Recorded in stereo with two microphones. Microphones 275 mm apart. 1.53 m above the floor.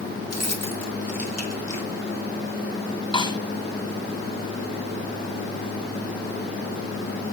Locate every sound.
0.3 s keys jangling: 70° right (ahead or behind), 2 m
3.1 s a snare drum: 20° left (ahead or behind), 1.8 m